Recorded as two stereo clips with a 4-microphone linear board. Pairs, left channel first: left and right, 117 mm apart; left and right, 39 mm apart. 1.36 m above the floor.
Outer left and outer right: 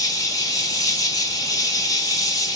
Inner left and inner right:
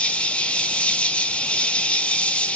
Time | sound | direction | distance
0.0 | an insect | 30° left (ahead or behind) | 1.1 m